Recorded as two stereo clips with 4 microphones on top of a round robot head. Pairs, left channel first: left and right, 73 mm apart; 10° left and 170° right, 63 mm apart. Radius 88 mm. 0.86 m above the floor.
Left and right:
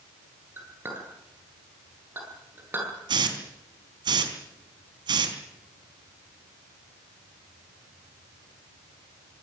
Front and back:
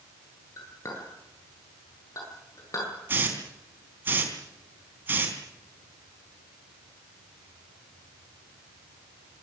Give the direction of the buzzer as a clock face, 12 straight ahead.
No buzzer in this recording.